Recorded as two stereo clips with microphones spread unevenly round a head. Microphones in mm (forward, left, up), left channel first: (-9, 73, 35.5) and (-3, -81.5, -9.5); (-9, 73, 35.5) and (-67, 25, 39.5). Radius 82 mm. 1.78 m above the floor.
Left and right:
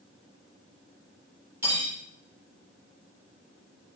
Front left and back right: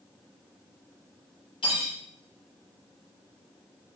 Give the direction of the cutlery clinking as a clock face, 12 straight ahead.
12 o'clock.